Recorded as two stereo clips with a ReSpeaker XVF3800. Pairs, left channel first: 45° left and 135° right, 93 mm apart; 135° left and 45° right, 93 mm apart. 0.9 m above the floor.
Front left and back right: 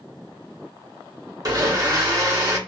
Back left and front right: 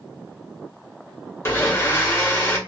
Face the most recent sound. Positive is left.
turn(degrees=-175)